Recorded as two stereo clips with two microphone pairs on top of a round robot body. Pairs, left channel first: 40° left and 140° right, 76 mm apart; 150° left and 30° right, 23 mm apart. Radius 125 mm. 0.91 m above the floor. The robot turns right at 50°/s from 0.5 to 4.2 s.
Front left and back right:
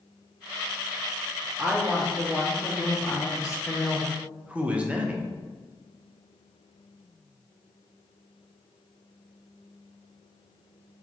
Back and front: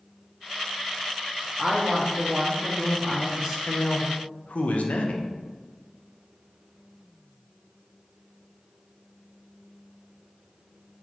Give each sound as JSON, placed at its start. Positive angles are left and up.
{"t": 1.6, "sound": "a woman speaking", "azimuth_deg": -75, "distance_m": 0.9}
{"t": 3.7, "sound": "a man speaking", "azimuth_deg": 120, "distance_m": 0.6}